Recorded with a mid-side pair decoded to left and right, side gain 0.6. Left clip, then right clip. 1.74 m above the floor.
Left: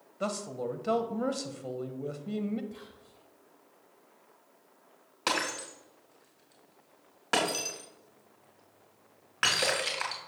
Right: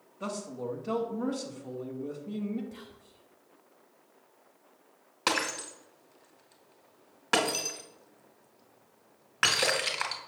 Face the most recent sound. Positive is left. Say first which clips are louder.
# right 1 dB
turn(degrees=-10)